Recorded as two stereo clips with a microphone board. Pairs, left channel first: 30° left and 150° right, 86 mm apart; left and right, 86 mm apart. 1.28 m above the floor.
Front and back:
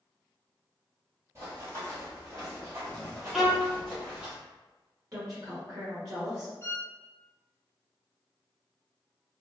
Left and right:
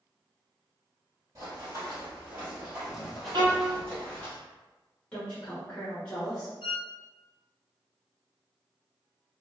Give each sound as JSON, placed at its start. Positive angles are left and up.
{"t": 1.4, "sound": "running footsteps", "azimuth_deg": -115, "distance_m": 1.7}
{"t": 3.3, "sound": "a violin", "azimuth_deg": -60, "distance_m": 0.6}
{"t": 5.1, "sound": "a woman speaking", "azimuth_deg": 160, "distance_m": 0.8}
{"t": 6.6, "sound": "a violin", "azimuth_deg": 90, "distance_m": 0.6}